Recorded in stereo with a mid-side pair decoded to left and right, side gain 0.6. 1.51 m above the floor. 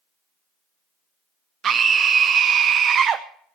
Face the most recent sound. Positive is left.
turn(degrees=-45)